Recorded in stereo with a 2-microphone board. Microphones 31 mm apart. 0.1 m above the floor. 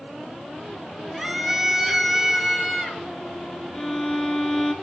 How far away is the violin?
About 1.5 m.